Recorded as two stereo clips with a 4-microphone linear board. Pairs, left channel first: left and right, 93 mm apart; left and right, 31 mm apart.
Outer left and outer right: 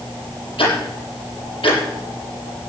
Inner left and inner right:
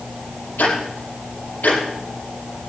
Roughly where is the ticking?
Left.